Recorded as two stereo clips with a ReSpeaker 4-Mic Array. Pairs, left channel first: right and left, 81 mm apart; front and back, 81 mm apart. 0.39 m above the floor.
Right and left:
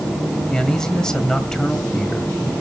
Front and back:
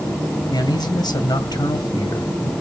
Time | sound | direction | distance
0.5 | a man speaking | 10° right | 1.7 m